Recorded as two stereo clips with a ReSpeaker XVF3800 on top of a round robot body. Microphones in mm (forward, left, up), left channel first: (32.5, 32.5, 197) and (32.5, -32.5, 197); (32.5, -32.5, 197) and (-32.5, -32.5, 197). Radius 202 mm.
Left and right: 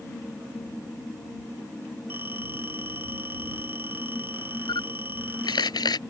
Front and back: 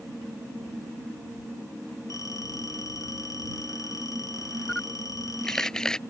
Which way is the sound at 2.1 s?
30° right.